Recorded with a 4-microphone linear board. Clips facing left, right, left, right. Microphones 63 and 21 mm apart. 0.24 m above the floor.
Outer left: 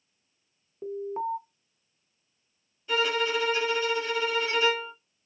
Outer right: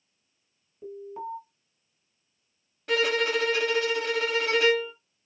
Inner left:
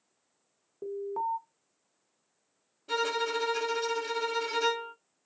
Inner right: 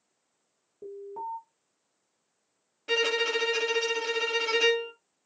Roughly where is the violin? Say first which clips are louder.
Outer right 2 dB, inner right 4 dB; right.